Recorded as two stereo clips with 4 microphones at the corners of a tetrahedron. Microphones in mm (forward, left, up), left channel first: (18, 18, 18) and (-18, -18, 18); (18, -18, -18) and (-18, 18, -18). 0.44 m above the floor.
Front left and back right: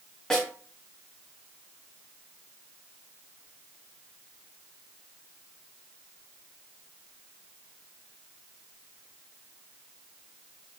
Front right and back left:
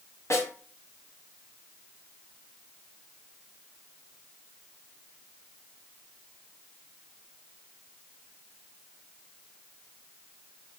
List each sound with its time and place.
0.3 s a snare drum: 30° right, 2.5 m